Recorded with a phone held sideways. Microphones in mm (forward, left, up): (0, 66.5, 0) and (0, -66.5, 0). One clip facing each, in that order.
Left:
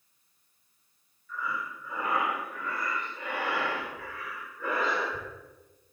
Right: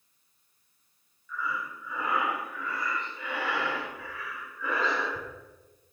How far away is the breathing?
About 1.3 m.